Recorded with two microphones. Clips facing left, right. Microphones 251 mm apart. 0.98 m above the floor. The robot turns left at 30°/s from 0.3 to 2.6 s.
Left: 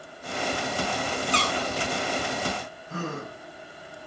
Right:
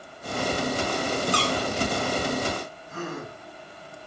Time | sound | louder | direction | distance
1.3 | a squeak | right 2 dB | 20° left (ahead or behind) | 4.5 m
2.9 | a gasp | left 1 dB | 70° left (ahead or behind) | 7 m